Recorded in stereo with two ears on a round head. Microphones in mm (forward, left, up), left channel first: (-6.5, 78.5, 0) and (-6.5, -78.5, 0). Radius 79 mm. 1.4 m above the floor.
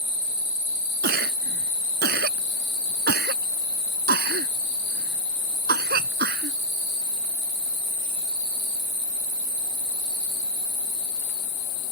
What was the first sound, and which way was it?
A cough, 60° right (ahead or behind).